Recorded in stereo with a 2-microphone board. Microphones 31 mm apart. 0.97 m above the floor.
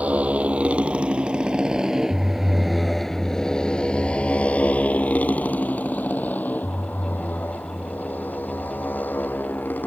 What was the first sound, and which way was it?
A motorcycle, 50° right (ahead or behind).